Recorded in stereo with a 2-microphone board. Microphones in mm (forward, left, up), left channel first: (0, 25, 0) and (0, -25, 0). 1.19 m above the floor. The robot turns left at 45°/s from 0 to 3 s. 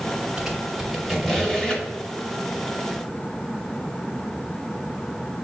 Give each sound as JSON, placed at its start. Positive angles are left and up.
{"t": 0.4, "sound": "a squeak", "side_deg": -10, "distance_m": 1.0}